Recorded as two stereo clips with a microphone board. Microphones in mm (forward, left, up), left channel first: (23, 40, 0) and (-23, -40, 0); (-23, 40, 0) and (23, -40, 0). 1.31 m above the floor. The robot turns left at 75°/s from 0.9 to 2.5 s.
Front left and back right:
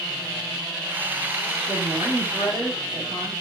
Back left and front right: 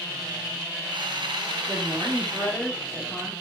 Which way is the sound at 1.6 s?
90° right.